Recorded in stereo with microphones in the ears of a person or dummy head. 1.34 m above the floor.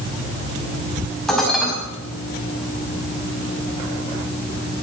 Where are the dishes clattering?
Centre (ahead or behind), 5.5 m.